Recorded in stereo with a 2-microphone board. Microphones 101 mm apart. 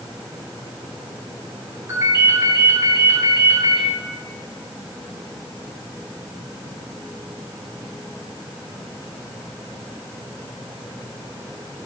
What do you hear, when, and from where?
1.9 s a ringtone: 25° right (ahead or behind), 4.5 m